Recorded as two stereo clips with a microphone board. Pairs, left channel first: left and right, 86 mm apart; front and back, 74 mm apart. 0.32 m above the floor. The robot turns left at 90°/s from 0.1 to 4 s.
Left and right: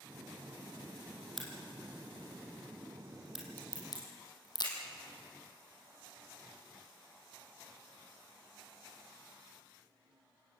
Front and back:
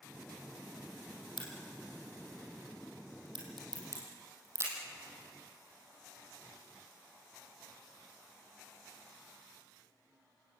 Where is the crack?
Straight ahead, 5.5 m; by 4.7 s 125° left, 5.5 m.